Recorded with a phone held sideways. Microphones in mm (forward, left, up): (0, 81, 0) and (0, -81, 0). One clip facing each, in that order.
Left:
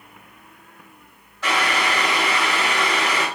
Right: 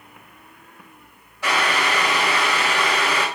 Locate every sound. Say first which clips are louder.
1.4 s boiling: even; 15° right (ahead or behind), 1.6 m